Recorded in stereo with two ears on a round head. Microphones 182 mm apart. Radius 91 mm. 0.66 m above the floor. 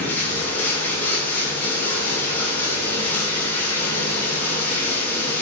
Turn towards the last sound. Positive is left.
turn(degrees=10)  # may be behind; listen again after turning